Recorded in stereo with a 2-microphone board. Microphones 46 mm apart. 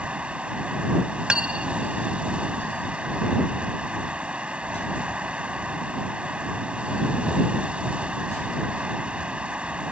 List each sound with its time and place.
0.0 s running water: 25° right (ahead or behind)
1.3 s cutlery clinking: 25° right (ahead or behind)